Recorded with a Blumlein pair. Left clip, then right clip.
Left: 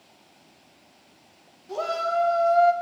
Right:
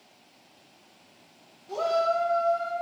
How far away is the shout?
About 1.6 m.